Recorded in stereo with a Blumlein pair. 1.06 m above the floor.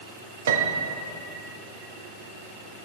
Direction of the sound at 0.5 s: 65° right.